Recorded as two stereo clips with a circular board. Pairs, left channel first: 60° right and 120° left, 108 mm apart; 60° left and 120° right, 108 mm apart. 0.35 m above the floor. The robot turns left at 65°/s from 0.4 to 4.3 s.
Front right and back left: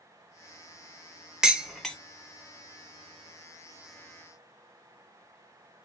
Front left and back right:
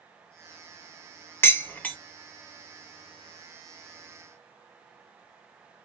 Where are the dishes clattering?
50° left, 0.5 m; by 2.0 s 20° left, 0.5 m.